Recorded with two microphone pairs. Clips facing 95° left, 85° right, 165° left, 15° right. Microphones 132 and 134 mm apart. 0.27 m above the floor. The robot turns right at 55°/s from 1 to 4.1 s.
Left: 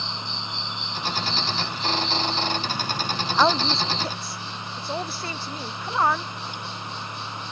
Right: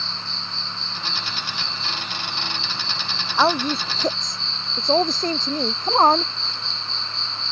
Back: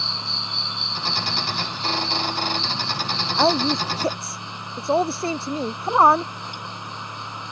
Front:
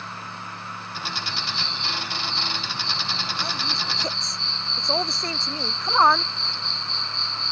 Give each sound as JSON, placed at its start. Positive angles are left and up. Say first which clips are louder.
{"t": 0.0, "sound": "an insect", "louder": "left 2 dB, back 2 dB", "azimuth_deg": 170}
{"t": 3.4, "sound": "a woman speaking", "louder": "right 2 dB, back 12 dB", "azimuth_deg": -170}